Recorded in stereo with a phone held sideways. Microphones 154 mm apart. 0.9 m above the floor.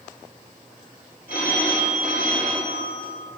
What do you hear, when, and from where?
1.3 s a phone ringing: 85° left, 2.5 m